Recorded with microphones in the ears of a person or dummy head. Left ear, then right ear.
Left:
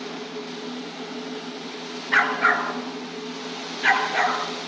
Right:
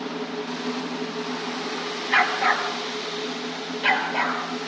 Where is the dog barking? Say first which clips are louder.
Left 1 dB; 30° left (ahead or behind), 4.5 m; by 4.7 s 40° left (ahead or behind), 7 m.